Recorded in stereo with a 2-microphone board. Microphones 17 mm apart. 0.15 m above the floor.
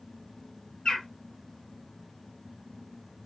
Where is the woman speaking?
No woman speaking in this recording.